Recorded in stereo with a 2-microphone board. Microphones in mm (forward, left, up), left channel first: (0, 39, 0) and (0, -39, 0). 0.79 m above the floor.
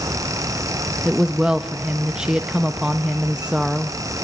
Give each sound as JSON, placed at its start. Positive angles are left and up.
{"t": 1.1, "sound": "a woman speaking", "side_deg": -10, "distance_m": 0.7}